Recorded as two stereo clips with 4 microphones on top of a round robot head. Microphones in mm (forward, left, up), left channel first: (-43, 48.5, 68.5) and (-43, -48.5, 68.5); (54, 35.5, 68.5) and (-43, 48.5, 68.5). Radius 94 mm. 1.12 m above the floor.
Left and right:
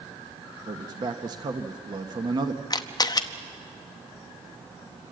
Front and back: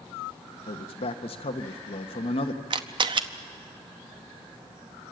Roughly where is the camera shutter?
Behind left.